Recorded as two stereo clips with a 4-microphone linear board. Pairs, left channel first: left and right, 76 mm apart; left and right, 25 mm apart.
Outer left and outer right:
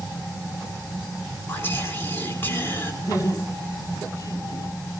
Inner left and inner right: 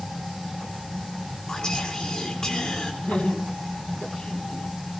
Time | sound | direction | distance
1.5 | whispering | 30° left (ahead or behind) | 3.5 m
3.0 | laughter | 45° left (ahead or behind) | 9.5 m